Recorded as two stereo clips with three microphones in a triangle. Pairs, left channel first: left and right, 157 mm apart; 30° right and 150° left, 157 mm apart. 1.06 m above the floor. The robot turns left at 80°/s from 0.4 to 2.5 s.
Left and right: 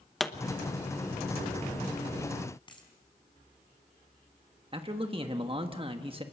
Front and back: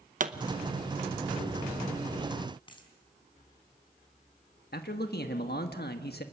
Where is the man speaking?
35° right, 1.4 m.